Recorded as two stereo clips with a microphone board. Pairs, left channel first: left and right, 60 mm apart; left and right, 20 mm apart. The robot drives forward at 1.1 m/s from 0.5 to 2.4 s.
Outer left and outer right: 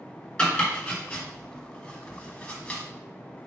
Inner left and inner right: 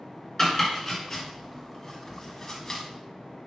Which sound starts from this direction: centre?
Chopping, at 0.4 s.